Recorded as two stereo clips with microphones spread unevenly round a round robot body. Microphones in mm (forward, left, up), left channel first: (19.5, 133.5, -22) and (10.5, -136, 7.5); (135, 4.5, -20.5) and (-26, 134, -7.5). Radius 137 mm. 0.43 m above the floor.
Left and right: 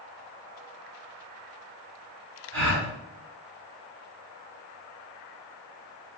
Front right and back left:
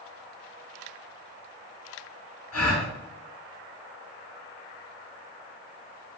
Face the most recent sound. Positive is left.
turn(degrees=-45)